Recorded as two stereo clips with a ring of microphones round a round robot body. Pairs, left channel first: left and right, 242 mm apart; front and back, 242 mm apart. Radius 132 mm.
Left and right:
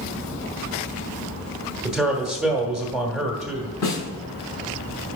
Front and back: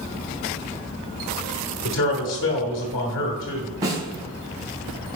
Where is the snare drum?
105° left, 3.5 m.